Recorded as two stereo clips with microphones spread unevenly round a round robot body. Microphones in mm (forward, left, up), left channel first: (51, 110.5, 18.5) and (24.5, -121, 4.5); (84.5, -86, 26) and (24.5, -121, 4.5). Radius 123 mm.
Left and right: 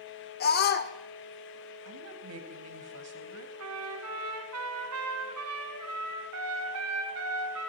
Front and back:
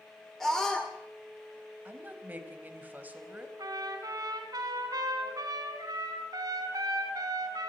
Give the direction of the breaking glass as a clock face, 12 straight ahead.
I don't hear breaking glass.